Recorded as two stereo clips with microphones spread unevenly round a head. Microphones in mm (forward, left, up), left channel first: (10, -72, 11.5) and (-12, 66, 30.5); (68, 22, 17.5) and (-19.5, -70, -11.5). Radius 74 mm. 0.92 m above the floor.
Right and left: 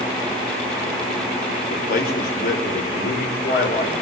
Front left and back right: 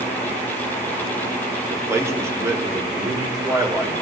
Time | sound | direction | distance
1.7 | a man speaking | 65° right | 1.6 m